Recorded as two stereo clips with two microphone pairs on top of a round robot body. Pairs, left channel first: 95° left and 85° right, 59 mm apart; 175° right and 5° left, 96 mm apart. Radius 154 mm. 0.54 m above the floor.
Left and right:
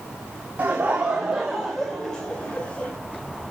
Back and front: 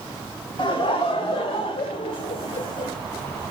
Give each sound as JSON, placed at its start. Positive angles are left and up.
{"t": 0.6, "sound": "laughter", "azimuth_deg": -150, "distance_m": 2.0}